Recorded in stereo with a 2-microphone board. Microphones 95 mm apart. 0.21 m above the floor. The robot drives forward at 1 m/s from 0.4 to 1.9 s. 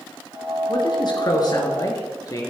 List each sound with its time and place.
0.7 s a man speaking: 55° left (ahead or behind), 2.5 m; by 2.5 s 40° left (ahead or behind), 3.5 m